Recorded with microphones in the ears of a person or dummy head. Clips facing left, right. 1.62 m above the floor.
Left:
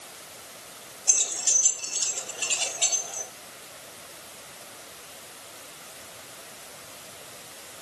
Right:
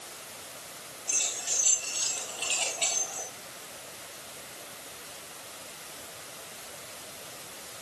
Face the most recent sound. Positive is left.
turn(degrees=5)  # may be behind; listen again after turning